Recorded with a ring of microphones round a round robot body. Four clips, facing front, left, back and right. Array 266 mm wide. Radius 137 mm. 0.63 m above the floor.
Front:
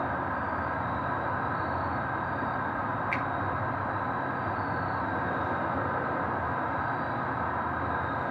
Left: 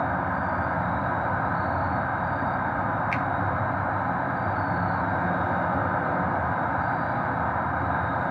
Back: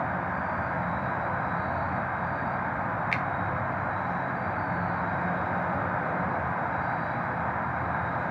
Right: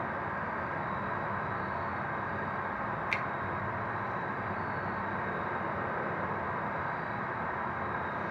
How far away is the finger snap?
About 1.5 m.